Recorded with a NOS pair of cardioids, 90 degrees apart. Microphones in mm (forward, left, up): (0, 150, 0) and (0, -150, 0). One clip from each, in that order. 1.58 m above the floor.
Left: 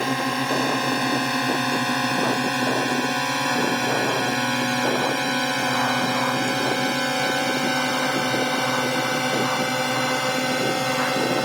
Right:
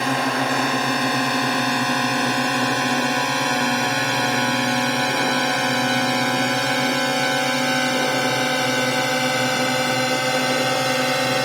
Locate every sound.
0.0 s a drone: 50° right; by 11.4 s 65° right